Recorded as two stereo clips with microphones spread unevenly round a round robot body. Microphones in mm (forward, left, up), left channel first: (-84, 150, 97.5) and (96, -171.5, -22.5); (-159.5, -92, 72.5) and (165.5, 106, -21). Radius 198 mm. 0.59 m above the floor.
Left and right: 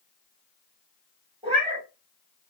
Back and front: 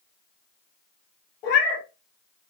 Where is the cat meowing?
140° right, 0.9 m.